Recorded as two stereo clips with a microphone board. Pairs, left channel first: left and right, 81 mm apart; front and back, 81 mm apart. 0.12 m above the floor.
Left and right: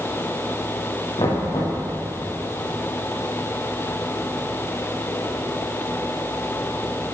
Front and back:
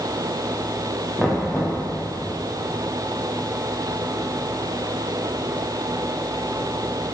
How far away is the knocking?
About 7 m.